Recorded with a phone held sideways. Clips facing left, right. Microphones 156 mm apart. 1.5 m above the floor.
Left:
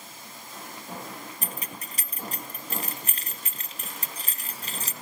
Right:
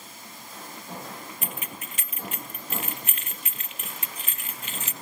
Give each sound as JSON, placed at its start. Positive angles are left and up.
{"t": 1.4, "sound": "keys jangling", "side_deg": 35, "distance_m": 0.9}